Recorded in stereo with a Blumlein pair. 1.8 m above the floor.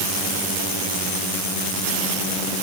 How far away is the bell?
I don't hear a bell.